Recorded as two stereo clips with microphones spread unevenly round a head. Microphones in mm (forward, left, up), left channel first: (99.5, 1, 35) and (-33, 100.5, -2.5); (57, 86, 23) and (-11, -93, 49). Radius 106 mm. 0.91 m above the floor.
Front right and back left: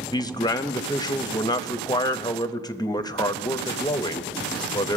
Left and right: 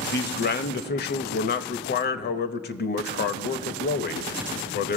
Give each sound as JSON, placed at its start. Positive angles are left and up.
{"t": 0.1, "sound": "a man speaking", "azimuth_deg": 35, "distance_m": 0.8}